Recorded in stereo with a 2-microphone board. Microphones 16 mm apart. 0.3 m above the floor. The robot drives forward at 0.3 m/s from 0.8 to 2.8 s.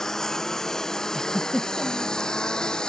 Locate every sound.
0.0 s a lawn mower: 40° left (ahead or behind); by 2.9 s 65° left (ahead or behind)
1.1 s a giggle: 10° left (ahead or behind)